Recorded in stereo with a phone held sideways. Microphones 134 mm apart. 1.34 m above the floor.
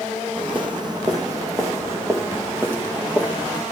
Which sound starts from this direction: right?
Footsteps, at 0.4 s.